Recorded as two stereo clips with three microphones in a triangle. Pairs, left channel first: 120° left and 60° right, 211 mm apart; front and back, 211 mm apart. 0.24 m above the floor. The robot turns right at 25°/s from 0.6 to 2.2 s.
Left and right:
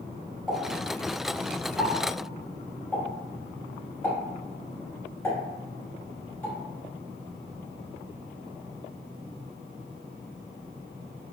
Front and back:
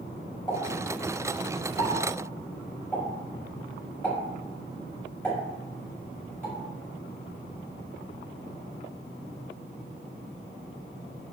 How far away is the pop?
About 1.4 m.